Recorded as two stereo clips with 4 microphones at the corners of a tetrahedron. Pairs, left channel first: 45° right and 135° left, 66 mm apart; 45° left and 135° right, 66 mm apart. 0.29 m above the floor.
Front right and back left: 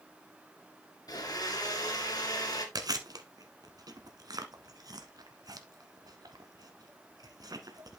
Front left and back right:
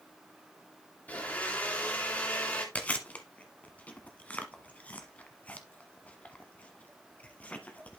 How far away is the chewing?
About 1.1 m.